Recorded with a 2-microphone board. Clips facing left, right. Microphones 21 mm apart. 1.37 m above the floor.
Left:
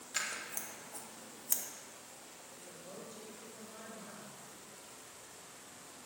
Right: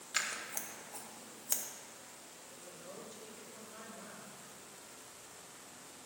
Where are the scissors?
15° right (ahead or behind), 0.8 m.